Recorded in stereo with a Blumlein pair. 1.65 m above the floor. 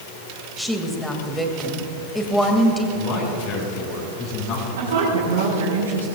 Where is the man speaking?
35° left, 6.5 m.